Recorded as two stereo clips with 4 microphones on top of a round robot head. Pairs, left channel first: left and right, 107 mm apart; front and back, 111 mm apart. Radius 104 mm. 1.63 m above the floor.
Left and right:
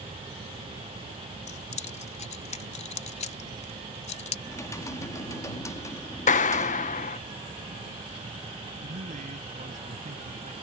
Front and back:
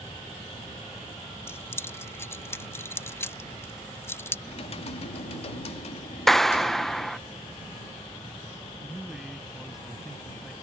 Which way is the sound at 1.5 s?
70° left.